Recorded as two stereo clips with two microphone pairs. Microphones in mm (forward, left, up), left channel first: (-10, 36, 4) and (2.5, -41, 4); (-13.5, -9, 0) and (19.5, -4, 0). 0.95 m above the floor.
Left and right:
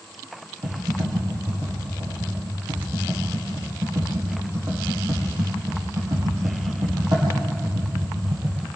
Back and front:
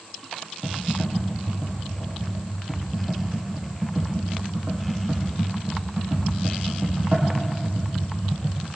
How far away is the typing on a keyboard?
About 9 m.